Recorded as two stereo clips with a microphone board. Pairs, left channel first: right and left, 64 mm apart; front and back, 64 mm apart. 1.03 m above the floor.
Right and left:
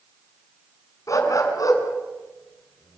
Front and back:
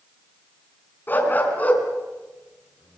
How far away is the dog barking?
About 4.5 m.